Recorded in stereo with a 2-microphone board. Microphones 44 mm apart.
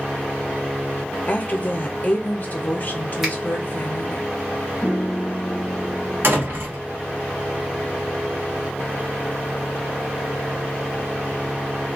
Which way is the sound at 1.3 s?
40° left (ahead or behind).